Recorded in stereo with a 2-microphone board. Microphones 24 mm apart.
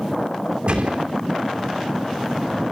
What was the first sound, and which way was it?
A gunshot, 45° right (ahead or behind).